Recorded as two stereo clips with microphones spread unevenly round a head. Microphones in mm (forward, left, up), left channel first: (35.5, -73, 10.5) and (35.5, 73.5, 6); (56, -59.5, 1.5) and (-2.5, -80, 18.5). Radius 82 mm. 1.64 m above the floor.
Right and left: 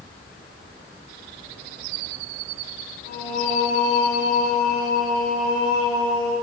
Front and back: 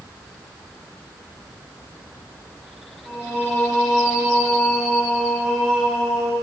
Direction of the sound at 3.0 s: 65° right.